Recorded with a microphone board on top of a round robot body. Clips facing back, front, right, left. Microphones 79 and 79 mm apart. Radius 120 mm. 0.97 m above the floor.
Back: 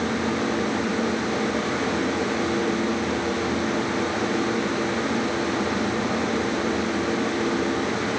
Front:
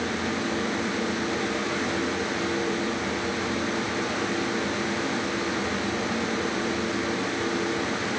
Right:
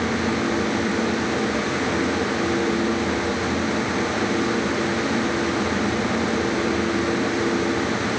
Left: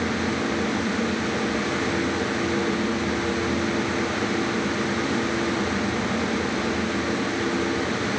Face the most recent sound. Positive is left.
No sound to turn to.